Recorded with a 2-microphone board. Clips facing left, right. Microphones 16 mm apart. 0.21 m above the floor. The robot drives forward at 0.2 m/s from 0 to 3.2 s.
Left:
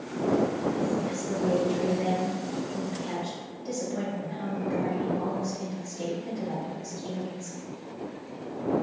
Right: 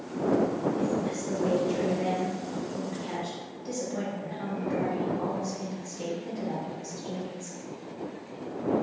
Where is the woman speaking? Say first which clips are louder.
Even; 15° right (ahead or behind), 0.9 m.